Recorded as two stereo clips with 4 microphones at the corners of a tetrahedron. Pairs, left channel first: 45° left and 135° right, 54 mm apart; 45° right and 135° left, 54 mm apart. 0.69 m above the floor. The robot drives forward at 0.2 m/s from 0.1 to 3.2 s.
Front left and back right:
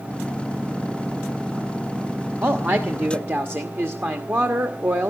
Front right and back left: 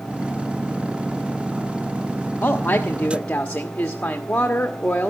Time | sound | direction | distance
2.4 | a woman speaking | 95° right | 1.3 m